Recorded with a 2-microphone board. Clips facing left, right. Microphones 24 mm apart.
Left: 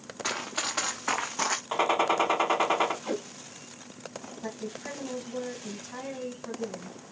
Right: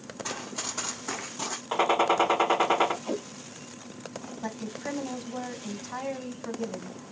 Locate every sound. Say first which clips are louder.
0.2 s running footsteps: left 5 dB; 75° left (ahead or behind), 1.4 m; by 1.6 s 65° left (ahead or behind), 0.5 m
1.7 s a gunshot: right 3 dB; centre (ahead or behind), 0.8 m
3.0 s tape being pulled: even; 55° left (ahead or behind), 3 m
4.4 s a woman speaking: right 2 dB; 30° right (ahead or behind), 1.1 m